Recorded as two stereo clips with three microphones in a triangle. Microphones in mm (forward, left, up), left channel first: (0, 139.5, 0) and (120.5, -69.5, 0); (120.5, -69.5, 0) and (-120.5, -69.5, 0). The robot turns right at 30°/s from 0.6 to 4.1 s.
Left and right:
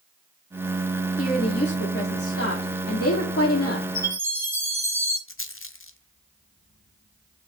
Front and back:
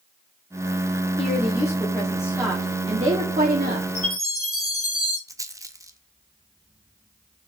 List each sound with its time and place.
1.2 s a woman speaking: 60° left, 1.6 m; by 3.9 s 140° left, 1.6 m
4.0 s a chime: 15° left, 3.5 m; by 5.2 s 20° left, 3.5 m
5.3 s a rattle: 105° left, 0.7 m